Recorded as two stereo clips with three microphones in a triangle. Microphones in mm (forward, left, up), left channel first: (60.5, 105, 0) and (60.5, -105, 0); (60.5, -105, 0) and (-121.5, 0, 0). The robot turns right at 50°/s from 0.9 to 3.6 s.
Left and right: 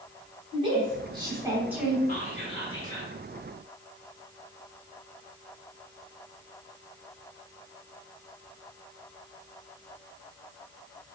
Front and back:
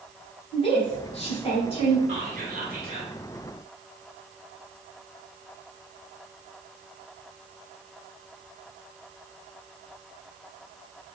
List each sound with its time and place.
0.5 s a woman speaking: 55° right, 1.4 m; by 2.0 s 5° right, 1.4 m
2.1 s whispering: 115° left, 1.6 m; by 3.1 s 165° left, 1.6 m